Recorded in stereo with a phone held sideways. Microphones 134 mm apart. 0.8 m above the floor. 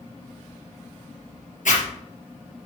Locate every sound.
1.6 s a zipper: 70° left (ahead or behind), 3 m